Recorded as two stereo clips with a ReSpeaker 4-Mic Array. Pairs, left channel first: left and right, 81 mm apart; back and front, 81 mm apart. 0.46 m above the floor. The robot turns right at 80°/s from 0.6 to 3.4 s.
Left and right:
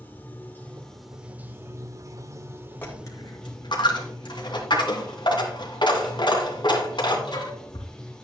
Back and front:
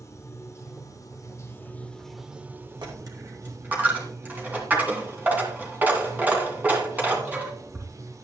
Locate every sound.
0.0 s running water: 150° left, 1.2 m; by 8.2 s 15° left, 1.2 m
2.8 s a dropped coin: 25° left, 2.5 m; by 7.9 s 70° left, 2.5 m